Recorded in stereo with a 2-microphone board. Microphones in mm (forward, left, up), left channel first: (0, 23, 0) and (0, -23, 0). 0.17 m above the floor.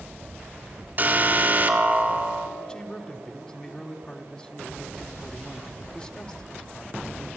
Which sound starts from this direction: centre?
A man speaking, at 2.6 s.